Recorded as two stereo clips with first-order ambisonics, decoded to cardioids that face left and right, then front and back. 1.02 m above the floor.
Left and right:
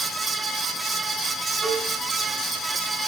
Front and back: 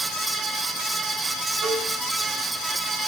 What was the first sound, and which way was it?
A cowbell, 145° right.